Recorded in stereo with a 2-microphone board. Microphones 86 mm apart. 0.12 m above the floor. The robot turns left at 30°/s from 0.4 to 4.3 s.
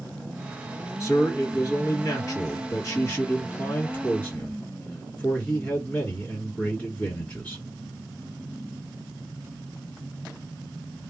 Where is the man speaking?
125° left, 2 m; by 7.6 s 25° left, 2 m.